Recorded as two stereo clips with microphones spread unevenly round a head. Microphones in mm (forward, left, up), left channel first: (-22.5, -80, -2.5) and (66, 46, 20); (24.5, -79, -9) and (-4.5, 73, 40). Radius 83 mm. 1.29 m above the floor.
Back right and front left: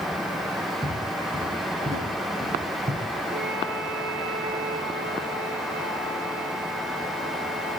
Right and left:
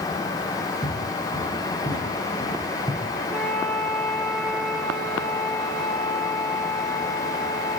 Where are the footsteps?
15° right, 8.5 m; by 3.0 s 5° right, 6.5 m.